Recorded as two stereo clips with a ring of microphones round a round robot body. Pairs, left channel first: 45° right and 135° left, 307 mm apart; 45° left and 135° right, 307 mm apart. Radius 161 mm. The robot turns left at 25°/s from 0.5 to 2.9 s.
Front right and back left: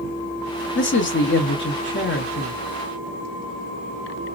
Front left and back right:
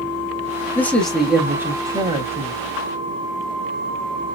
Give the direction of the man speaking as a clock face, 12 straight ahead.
1 o'clock.